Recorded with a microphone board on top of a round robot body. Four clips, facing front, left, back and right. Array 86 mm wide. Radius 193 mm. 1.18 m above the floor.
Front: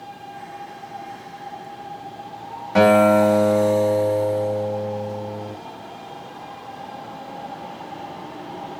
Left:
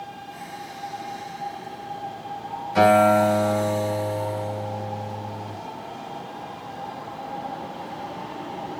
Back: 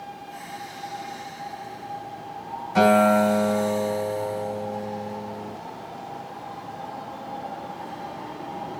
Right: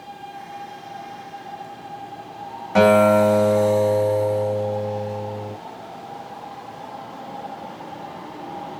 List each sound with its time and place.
2.8 s a guitar: 55° right, 3 m